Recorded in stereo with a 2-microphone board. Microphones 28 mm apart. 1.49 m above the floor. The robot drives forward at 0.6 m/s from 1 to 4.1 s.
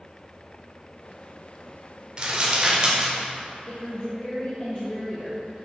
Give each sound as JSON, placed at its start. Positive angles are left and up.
{"t": 2.2, "sound": "crumpling", "side_deg": -30, "distance_m": 1.4}
{"t": 3.7, "sound": "a woman speaking", "side_deg": 50, "distance_m": 0.9}